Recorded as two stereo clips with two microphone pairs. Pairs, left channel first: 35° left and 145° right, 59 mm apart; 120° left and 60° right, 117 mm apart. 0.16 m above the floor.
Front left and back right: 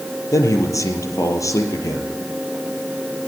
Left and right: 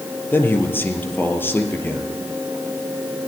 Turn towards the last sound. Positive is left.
turn(degrees=50)